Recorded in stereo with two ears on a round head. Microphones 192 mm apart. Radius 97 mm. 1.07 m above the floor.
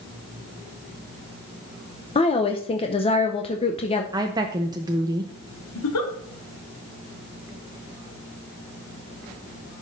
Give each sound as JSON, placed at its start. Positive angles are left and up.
{"t": 2.1, "sound": "a woman speaking", "side_deg": 25, "distance_m": 0.6}
{"t": 4.1, "sound": "a woman speaking", "side_deg": -20, "distance_m": 0.7}
{"t": 5.8, "sound": "a giggle", "side_deg": 75, "distance_m": 1.7}